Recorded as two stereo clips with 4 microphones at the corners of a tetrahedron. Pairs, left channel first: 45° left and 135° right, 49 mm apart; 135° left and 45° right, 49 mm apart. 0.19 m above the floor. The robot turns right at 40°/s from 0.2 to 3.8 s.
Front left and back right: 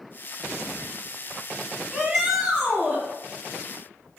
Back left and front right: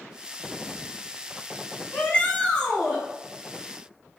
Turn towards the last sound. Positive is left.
turn(degrees=-130)